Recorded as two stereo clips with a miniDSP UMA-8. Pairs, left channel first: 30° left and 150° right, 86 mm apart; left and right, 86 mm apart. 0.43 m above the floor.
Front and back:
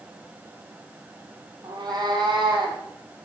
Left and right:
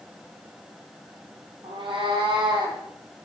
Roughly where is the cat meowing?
Right.